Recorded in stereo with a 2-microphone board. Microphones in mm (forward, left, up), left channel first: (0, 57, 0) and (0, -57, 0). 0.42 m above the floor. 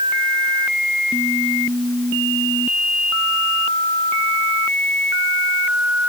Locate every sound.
Only background noise.